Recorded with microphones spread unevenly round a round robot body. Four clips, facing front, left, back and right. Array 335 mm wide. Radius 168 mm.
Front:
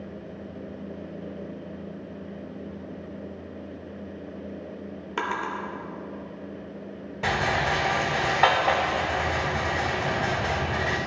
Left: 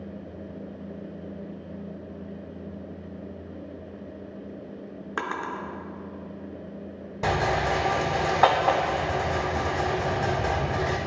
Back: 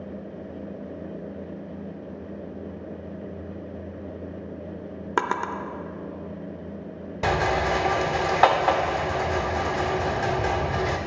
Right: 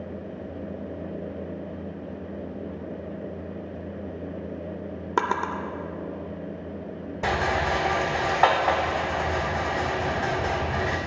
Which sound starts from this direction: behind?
A rattle, at 7.2 s.